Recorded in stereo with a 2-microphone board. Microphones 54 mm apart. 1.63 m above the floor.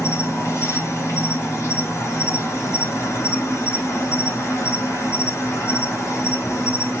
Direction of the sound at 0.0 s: 60° left (ahead or behind).